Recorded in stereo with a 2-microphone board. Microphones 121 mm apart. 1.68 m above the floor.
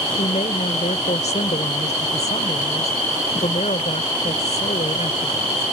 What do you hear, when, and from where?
0.2 s a woman speaking: 70° left (ahead or behind)